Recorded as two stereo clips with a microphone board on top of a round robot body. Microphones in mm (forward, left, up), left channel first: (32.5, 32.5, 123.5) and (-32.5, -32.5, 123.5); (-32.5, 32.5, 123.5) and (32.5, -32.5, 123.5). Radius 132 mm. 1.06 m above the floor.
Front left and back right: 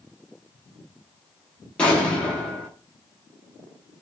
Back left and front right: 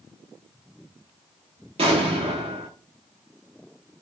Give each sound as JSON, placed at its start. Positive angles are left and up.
{"t": 1.8, "sound": "an explosion", "azimuth_deg": -35, "distance_m": 0.8}